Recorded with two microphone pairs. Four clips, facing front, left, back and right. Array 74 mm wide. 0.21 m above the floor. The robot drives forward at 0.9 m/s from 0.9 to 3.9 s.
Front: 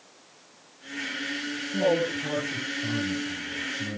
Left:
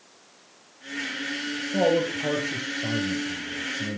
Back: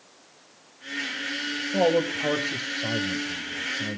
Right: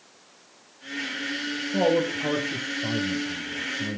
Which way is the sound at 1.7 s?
165° left.